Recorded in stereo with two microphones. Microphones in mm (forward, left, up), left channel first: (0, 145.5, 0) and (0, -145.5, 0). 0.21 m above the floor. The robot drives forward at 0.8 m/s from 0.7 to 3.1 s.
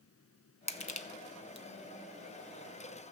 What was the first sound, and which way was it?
Crushing, 20° left (ahead or behind).